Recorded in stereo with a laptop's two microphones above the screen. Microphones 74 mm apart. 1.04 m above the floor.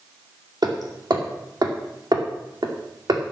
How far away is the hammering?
About 2.5 m.